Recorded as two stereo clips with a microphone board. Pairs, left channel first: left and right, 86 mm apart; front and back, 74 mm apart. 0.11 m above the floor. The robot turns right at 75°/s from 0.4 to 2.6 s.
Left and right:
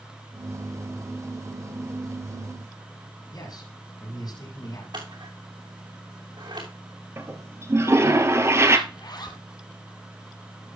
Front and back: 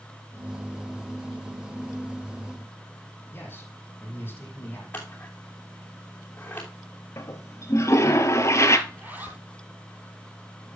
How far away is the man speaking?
About 5.5 m.